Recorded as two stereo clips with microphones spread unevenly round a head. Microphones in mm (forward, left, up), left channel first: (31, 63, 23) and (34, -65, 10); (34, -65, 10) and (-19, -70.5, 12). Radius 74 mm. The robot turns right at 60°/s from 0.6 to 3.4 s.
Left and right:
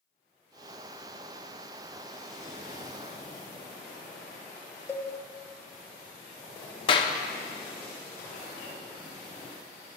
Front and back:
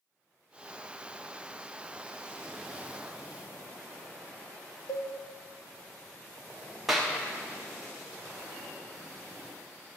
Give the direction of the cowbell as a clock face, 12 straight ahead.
11 o'clock.